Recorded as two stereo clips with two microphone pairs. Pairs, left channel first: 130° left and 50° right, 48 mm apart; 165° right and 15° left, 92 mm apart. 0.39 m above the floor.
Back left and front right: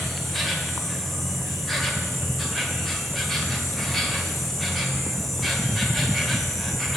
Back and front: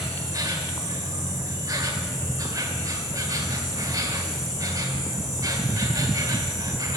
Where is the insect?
45° left, 1.8 m.